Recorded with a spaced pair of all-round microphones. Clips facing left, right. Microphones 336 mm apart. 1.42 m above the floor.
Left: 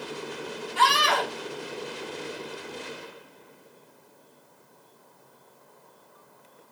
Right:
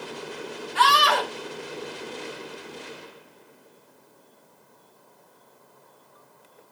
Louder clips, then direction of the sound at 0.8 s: Right 2 dB; 90° right.